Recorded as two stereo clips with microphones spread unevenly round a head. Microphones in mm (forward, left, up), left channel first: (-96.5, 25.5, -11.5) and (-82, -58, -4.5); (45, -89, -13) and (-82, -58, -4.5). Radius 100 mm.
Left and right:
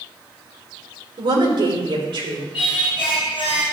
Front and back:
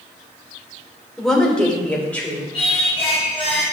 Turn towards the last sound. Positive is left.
turn(degrees=50)